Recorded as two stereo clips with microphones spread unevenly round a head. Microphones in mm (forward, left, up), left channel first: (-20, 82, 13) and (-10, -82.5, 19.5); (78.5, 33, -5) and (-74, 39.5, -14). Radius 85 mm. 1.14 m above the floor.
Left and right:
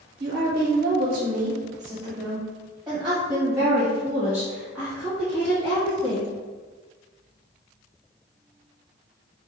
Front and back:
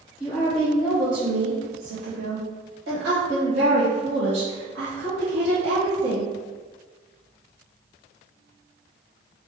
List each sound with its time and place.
0.2 s a woman speaking: 85° right, 0.9 m; by 6.3 s 170° left, 3 m